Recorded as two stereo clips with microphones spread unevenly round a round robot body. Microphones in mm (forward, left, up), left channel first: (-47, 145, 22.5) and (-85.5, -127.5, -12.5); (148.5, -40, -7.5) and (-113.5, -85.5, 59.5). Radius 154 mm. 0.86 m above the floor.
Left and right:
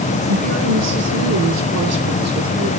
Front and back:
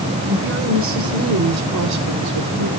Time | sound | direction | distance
0.3 | a woman speaking | 120° right | 4.5 m